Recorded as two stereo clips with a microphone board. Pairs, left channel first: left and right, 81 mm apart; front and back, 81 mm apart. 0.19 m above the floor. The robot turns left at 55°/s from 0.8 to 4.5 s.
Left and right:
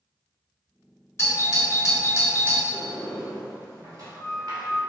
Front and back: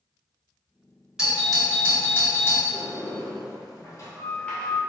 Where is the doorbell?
105° left, 1.9 m; by 2.6 s 25° left, 1.9 m.